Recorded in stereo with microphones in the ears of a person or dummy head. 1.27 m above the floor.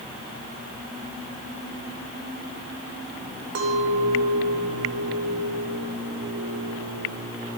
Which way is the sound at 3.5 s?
75° right (ahead or behind).